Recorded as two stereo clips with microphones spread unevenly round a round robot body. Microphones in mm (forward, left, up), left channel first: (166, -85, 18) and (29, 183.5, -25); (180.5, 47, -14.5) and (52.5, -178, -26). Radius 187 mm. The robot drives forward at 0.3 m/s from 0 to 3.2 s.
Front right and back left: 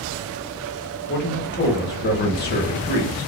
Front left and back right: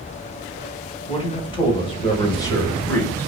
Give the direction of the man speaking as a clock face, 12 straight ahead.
12 o'clock.